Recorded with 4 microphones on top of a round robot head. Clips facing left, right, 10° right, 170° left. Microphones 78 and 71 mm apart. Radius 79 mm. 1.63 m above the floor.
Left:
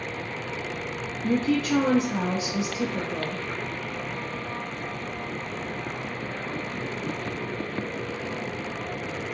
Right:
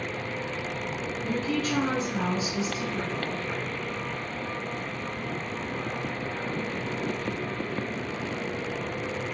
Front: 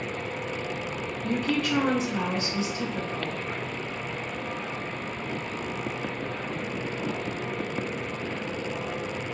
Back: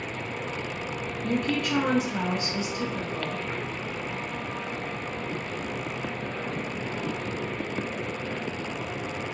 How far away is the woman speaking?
About 0.6 m.